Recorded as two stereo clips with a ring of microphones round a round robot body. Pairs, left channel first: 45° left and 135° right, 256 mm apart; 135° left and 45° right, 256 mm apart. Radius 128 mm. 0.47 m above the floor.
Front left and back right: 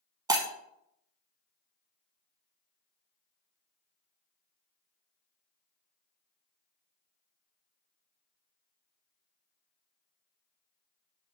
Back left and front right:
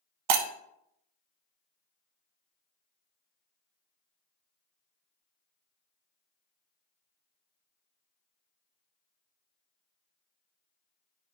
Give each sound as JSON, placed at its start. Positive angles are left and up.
{"t": 0.3, "sound": "breaking glass", "azimuth_deg": -60, "distance_m": 0.5}